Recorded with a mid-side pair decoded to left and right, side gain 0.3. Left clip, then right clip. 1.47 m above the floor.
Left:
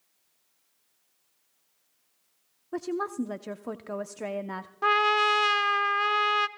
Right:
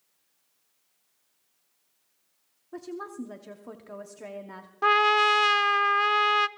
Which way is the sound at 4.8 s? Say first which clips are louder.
Right 2 dB; 30° right.